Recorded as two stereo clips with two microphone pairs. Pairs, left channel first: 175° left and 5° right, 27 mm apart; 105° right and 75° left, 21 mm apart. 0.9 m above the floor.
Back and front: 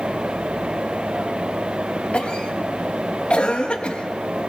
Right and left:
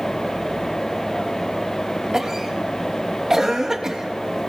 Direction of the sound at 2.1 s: 135° left.